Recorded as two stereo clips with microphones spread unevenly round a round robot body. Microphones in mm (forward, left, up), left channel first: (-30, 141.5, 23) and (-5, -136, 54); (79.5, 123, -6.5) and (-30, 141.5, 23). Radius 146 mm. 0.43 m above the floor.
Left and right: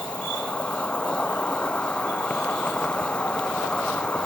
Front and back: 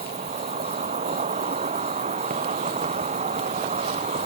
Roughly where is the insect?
Behind.